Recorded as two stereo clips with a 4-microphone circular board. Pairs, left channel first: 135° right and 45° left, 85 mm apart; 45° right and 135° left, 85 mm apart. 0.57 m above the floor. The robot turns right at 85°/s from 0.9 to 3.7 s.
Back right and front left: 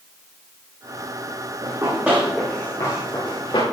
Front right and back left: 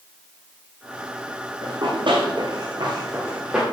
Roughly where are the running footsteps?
Left.